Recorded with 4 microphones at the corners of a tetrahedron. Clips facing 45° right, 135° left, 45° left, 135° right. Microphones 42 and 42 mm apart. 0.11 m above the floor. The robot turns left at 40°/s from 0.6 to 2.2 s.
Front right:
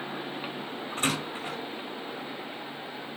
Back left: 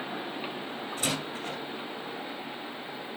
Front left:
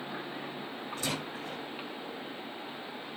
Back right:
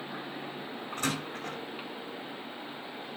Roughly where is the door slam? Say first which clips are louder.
Front right 3 dB, back right 3 dB; right.